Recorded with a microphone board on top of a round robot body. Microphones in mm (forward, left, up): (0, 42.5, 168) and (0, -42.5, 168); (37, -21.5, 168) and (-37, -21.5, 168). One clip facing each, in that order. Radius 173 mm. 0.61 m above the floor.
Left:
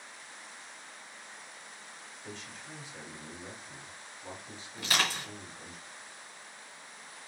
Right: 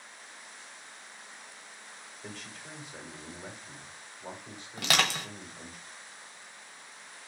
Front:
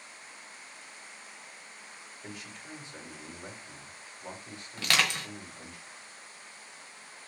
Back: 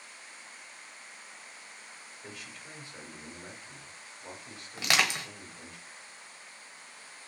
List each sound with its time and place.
2.2 s a man speaking: 70° right, 2.5 m
4.8 s crushing: 105° right, 1.3 m